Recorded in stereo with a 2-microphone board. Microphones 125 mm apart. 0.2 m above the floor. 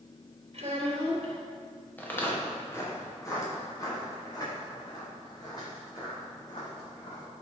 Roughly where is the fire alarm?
I don't hear a fire alarm.